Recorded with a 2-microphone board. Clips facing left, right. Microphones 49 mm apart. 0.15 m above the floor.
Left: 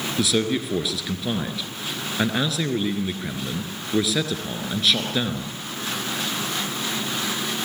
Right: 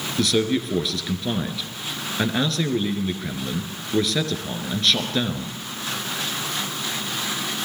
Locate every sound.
0.2 s a man speaking: 5° left (ahead or behind), 3 m